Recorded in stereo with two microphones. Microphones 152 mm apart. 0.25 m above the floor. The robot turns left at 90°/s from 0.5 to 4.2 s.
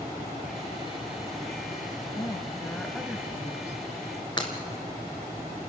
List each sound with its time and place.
2.2 s a woman speaking: 65° left, 1.2 m; by 3.8 s 80° right, 1.2 m
4.4 s breaking glass: 30° left (ahead or behind), 2 m